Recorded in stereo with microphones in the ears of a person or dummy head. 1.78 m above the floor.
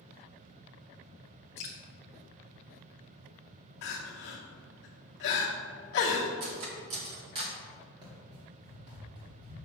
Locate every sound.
1.6 s dripping: 20° left (ahead or behind), 0.5 m
3.8 s crying: 55° left (ahead or behind), 1.4 m
6.4 s cutlery clinking: 20° right (ahead or behind), 0.9 m
8.0 s running footsteps: 25° right (ahead or behind), 1.8 m; by 9.7 s 35° right (ahead or behind), 2.5 m